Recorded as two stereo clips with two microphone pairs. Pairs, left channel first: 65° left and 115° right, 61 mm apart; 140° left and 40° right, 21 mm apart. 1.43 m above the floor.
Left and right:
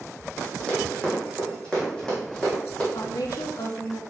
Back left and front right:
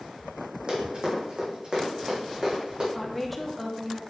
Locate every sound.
0.7 s running footsteps: 5° right, 3 m
3.0 s a woman speaking: 50° left, 1.0 m